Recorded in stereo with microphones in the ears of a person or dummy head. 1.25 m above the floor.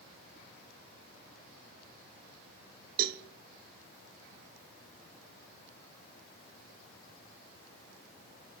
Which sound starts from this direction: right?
A cowbell, at 3.0 s.